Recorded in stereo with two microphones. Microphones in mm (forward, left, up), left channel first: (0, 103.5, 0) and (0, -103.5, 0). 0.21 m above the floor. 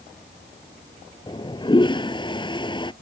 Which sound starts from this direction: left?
A toilet flushing, at 1.3 s.